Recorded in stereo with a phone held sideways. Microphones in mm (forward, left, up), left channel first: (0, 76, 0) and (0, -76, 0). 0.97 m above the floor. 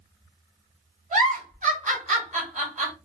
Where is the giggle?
55° right (ahead or behind), 1.2 m.